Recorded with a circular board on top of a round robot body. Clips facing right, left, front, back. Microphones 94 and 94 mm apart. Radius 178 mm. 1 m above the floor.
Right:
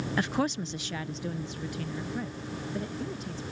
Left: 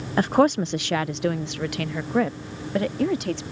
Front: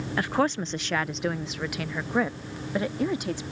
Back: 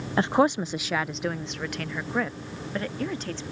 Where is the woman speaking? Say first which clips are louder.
Left 12 dB, back 4 dB; 125° left; by 3.4 s 75° left.